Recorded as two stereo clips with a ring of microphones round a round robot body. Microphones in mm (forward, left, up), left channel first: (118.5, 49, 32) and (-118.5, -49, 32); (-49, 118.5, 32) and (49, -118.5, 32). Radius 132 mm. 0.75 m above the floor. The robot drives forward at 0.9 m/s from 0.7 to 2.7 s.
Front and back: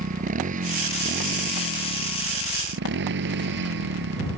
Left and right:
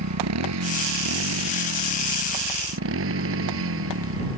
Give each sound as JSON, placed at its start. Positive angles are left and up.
{"t": 0.0, "sound": "a motorcycle", "azimuth_deg": -95}